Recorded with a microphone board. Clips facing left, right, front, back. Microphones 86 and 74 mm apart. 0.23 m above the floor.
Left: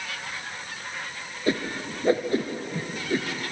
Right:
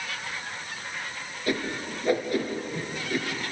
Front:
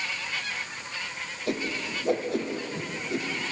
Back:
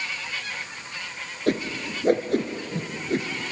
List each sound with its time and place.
1.5 s a whoosh: 150° left, 1.9 m